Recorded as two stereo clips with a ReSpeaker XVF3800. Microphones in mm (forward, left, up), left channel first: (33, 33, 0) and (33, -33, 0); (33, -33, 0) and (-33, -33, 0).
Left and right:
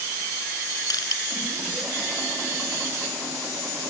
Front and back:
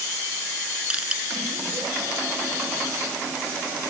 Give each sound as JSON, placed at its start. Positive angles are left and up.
{"t": 0.9, "sound": "crushing", "azimuth_deg": 105}